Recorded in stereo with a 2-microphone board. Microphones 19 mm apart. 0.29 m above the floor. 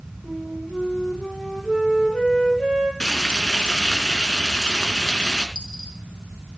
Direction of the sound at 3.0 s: 55° left (ahead or behind).